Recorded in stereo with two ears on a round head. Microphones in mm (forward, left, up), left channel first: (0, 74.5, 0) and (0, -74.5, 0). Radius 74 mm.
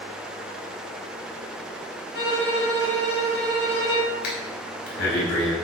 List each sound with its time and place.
2.1 s a violin: 70° left (ahead or behind), 6 m
4.2 s breathing: 75° left (ahead or behind), 5 m